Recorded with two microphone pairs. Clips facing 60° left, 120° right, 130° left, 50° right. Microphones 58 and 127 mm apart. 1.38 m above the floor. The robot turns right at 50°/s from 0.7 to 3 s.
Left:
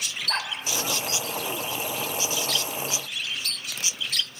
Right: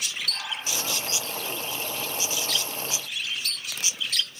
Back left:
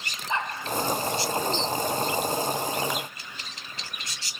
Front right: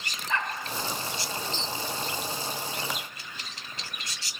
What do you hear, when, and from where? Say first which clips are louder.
0.3 s a dog barking: left 5 dB, back left 1 dB; 65° left, 2.5 m